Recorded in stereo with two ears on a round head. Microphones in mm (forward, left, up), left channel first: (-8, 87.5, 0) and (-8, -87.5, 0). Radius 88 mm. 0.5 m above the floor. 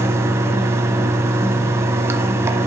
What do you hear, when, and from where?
0.0 s running water: 15° right (ahead or behind), 1.0 m